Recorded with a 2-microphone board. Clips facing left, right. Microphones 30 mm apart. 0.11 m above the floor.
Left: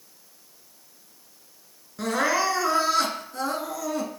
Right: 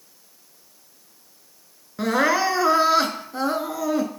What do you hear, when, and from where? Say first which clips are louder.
2.0 s crying: right 4 dB; 20° right (ahead or behind), 0.5 m